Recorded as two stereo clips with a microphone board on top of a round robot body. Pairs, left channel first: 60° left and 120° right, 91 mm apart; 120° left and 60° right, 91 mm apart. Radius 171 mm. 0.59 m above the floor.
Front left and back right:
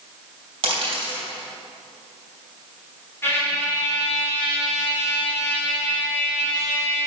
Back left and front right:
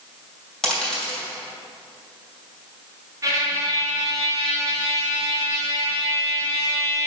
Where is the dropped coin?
155° right, 2.5 m.